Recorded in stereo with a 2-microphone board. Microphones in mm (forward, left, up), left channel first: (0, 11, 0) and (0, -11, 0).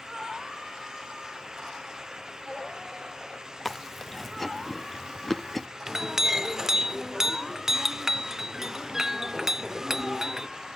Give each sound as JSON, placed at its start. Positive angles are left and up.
{"t": 3.6, "sound": "chewing", "side_deg": 5, "distance_m": 0.7}
{"t": 5.9, "sound": "a clink", "side_deg": -20, "distance_m": 0.8}